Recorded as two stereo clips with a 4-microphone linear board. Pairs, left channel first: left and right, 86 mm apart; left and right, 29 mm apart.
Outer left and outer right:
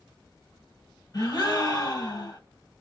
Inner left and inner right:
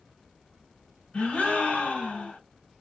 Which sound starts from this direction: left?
A gasp, at 1.1 s.